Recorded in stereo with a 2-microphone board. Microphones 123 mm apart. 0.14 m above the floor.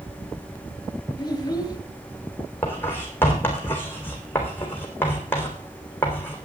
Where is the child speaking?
30° left (ahead or behind), 1.9 m.